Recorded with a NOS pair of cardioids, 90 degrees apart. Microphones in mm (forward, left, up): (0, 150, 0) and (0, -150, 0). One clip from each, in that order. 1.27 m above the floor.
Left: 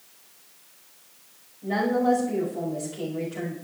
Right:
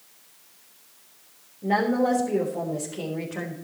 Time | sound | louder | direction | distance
1.6 | a woman speaking | right 1 dB | 55° right | 5 m